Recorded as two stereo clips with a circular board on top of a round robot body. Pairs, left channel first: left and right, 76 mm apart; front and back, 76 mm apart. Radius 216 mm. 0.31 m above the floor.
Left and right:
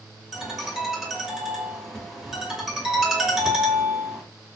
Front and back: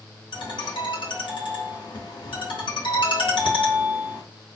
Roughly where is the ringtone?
Ahead.